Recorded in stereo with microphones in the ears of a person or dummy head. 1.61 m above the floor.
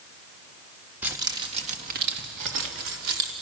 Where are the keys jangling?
10° right (ahead or behind), 2.0 m; by 3.3 s 80° right, 3.5 m.